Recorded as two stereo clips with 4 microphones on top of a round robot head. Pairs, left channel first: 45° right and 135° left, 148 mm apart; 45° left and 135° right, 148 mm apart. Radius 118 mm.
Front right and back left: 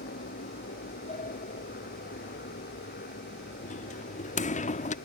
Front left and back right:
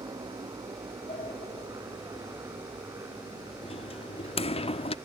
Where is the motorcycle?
70° right; by 5.0 s 65° right.